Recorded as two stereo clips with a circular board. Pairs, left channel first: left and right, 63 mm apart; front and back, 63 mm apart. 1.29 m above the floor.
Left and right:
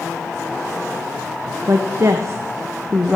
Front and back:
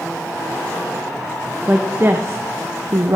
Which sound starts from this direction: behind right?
A woman speaking, at 1.7 s.